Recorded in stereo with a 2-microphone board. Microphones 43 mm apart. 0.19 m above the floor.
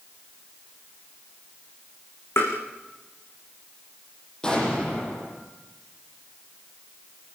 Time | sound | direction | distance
2.4 | tapping | 85° left | 6.5 m
4.4 | an explosion | 15° left (ahead or behind) | 7.5 m